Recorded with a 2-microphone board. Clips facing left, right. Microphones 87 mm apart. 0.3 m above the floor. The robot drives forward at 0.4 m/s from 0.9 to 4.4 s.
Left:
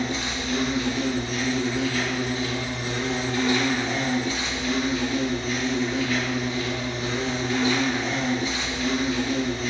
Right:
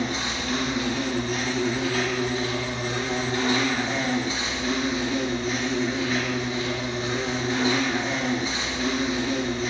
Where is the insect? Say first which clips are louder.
Even; 60° right (ahead or behind), 1.2 m; by 9.7 s 30° right (ahead or behind), 2.0 m.